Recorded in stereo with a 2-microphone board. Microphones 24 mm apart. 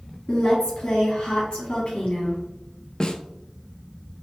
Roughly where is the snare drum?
Left.